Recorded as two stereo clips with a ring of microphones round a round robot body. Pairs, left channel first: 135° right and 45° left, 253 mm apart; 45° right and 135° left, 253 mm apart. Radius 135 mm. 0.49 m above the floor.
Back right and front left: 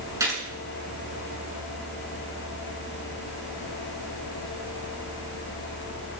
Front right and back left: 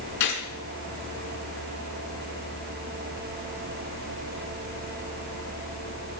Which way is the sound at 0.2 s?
35° right.